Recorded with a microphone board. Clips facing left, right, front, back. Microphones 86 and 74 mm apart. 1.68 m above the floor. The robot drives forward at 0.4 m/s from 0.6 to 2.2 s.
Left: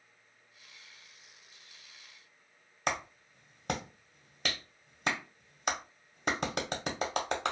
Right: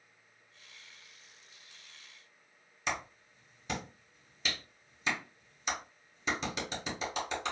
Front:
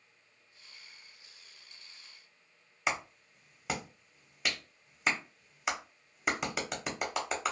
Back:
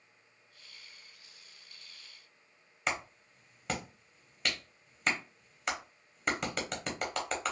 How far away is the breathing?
I don't hear breathing.